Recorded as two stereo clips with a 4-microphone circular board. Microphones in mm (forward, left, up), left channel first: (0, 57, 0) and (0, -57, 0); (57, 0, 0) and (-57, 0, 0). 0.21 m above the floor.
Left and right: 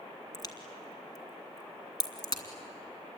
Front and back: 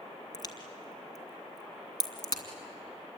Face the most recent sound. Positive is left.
turn(degrees=45)